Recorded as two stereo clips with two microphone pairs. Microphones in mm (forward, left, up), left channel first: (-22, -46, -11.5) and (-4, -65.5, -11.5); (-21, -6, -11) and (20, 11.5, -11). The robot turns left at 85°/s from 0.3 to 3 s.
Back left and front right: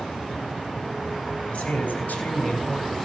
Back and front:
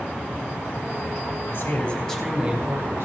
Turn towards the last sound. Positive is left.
turn(degrees=50)